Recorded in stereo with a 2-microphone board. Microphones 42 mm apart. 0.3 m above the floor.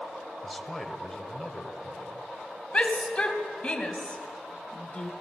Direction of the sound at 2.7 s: 25° left (ahead or behind).